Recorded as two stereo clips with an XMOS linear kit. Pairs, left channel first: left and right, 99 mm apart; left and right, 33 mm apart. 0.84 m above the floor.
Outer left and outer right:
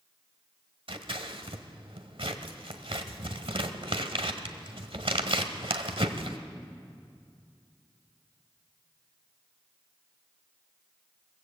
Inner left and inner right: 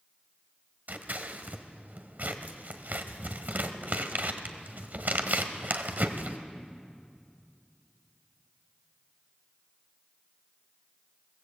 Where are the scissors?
70° right (ahead or behind), 1.3 m.